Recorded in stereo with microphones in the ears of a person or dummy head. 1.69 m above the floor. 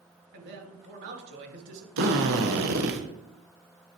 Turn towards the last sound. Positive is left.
turn(degrees=-80)